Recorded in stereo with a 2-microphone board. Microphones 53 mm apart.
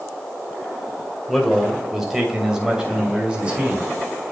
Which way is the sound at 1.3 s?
Centre (ahead or behind).